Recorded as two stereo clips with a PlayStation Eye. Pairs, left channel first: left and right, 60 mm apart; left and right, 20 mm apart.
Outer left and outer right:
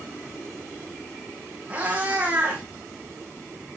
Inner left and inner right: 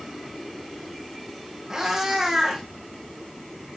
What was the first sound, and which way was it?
A cat meowing, 25° right (ahead or behind).